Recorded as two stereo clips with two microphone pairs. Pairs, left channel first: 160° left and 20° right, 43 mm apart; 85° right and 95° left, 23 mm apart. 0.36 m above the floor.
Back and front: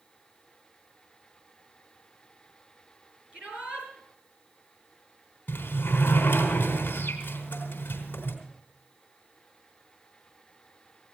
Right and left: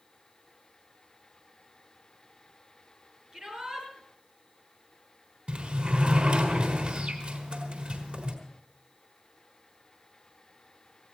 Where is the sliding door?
120° left, 4 m.